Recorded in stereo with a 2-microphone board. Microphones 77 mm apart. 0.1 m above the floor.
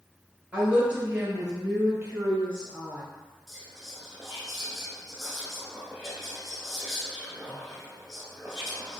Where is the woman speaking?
15° right (ahead or behind), 1.4 m.